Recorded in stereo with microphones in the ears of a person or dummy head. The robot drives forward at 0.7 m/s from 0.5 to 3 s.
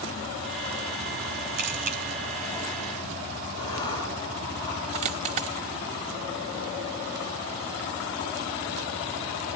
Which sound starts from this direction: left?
Writing, at 3.6 s.